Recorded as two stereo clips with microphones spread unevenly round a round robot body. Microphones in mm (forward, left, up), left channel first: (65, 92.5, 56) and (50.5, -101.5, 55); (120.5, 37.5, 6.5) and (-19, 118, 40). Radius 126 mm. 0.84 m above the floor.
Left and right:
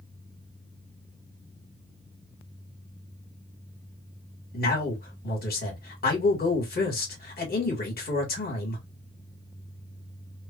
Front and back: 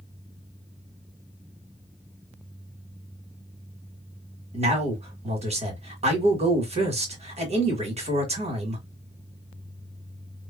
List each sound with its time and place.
4.5 s a man speaking: 100° left, 1.4 m